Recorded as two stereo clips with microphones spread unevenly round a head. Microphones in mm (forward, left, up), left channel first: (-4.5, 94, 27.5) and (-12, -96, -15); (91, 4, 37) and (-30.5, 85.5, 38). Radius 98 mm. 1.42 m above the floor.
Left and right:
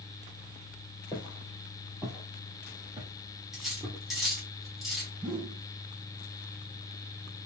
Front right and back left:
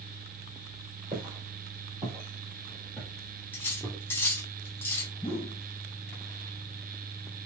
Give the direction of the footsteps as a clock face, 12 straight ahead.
7 o'clock.